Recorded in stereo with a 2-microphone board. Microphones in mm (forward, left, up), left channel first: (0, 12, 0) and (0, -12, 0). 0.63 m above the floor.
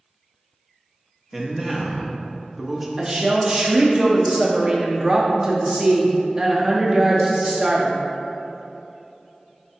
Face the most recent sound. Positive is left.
turn(degrees=-20)  # may be behind; listen again after turning